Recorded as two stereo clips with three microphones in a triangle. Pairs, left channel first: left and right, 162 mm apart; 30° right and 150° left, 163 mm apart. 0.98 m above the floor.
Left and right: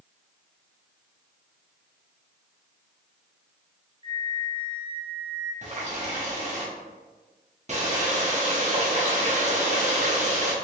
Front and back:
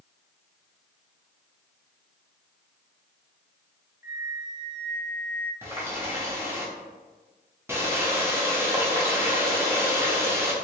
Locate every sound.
4.0 s a flute: 135° right, 1.1 m
5.6 s a running tap: 135° right, 1.0 m